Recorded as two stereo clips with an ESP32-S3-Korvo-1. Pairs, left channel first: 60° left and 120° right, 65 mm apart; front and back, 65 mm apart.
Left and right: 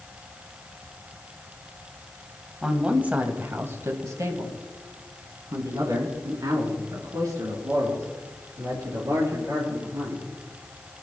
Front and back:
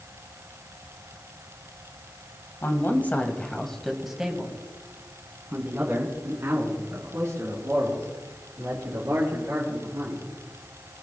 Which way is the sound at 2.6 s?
45° right.